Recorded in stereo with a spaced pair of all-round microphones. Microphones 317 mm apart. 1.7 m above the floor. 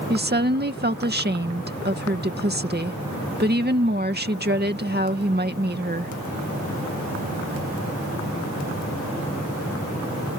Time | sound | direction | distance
0.1 | a woman speaking | 30° right (ahead or behind) | ?